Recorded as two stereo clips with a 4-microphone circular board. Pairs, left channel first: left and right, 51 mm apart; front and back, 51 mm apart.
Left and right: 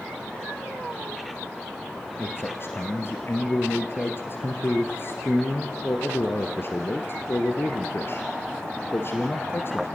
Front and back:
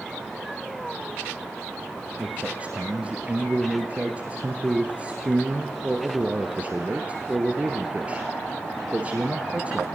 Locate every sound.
2.2 s a man speaking: 120° left, 1.9 m